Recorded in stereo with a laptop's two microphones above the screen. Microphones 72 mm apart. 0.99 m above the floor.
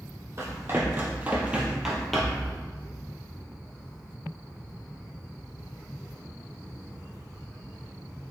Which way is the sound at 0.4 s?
35° right (ahead or behind).